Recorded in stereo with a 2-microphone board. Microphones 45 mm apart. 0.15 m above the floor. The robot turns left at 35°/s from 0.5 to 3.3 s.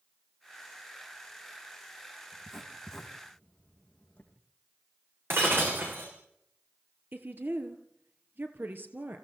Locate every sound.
2.3 s writing: centre (ahead or behind), 4.5 m; by 4.3 s 35° left (ahead or behind), 4.5 m
5.3 s breaking glass: 65° right (ahead or behind), 6 m
7.1 s a woman speaking: 50° right (ahead or behind), 3 m